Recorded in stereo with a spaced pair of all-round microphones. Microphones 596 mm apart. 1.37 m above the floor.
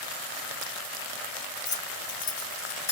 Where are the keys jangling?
60° left (ahead or behind), 0.9 m; by 2.9 s 30° left (ahead or behind), 0.8 m.